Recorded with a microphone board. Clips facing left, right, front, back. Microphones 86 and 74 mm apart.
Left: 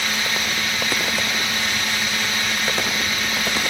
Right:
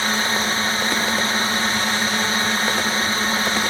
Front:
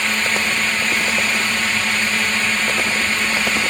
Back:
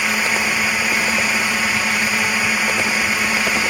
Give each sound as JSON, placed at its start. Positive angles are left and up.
{"t": 0.0, "sound": "a drone", "azimuth_deg": -110}